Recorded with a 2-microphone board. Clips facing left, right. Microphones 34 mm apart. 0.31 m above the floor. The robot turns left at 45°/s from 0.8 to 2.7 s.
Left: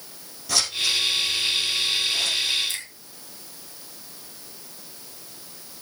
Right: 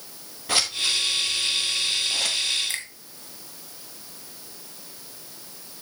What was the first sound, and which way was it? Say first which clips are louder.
Scissors: even; 40° right (ahead or behind).